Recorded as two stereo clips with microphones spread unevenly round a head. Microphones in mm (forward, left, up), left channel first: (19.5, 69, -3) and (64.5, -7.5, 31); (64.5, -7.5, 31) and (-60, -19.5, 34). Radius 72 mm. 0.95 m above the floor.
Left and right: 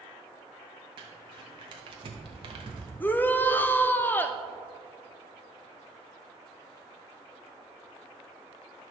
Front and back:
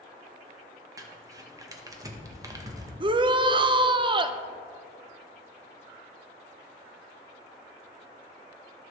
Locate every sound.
1.0 s crumpling: 115° right, 1.0 m
3.0 s a shout: 150° left, 0.5 m